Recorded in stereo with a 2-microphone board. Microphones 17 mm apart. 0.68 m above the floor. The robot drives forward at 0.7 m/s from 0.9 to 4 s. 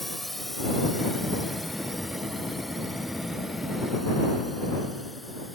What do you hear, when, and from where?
0.0 s a drone: 15° left (ahead or behind); by 5.5 s 5° left (ahead or behind)